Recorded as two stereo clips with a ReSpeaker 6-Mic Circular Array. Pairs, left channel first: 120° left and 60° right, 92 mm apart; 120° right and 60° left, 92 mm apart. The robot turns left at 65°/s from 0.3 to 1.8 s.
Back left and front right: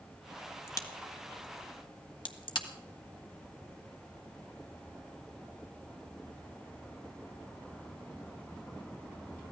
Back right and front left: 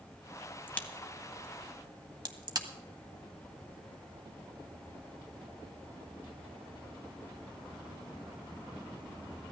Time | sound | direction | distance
0.7 | a crack | 175° left | 1.3 m